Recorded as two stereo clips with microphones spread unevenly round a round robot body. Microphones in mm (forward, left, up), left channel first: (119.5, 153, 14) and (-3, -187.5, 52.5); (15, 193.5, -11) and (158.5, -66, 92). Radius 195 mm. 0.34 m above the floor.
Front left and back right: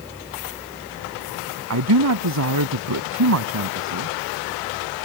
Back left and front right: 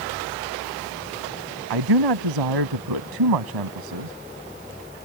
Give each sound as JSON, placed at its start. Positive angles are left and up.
{"t": 1.7, "sound": "a man speaking", "azimuth_deg": -65}